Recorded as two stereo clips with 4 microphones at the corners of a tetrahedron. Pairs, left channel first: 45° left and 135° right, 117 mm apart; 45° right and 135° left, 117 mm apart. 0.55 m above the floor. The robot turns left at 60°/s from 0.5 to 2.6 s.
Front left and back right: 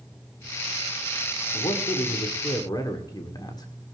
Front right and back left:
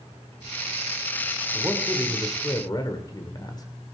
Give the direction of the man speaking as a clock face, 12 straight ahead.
10 o'clock.